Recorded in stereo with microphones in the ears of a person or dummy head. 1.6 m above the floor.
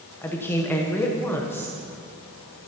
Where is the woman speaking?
15° left (ahead or behind), 0.9 m.